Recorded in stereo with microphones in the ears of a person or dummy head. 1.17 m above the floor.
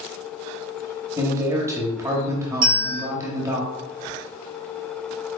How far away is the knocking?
I don't hear knocking.